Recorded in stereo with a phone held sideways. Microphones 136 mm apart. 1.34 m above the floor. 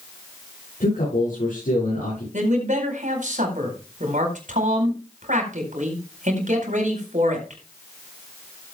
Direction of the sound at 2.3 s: 70° right (ahead or behind).